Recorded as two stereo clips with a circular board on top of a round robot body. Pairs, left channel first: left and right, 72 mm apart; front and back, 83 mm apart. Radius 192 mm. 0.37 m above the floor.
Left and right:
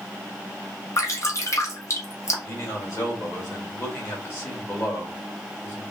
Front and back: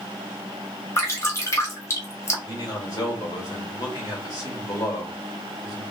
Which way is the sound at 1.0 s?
50° left.